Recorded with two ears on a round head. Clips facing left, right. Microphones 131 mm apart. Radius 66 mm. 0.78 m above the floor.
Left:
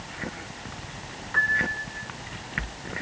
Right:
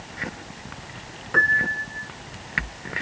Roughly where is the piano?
Right.